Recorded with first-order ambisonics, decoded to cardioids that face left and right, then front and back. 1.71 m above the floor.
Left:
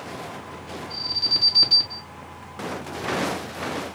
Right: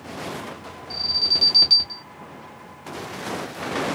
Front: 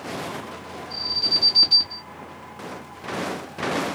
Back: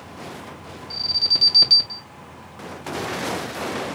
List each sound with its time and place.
0.9 s an alarm: 140° right, 2.5 m